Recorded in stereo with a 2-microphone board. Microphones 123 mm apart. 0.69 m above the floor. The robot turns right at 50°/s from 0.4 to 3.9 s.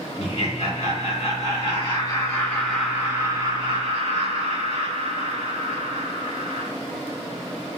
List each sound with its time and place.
0.2 s laughter: 55° left, 1.5 m; by 6.7 s 130° right, 1.5 m